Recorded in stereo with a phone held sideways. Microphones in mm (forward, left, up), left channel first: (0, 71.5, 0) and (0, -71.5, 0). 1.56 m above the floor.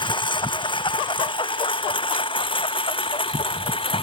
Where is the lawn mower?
30° left (ahead or behind); by 4.0 s 35° left (ahead or behind).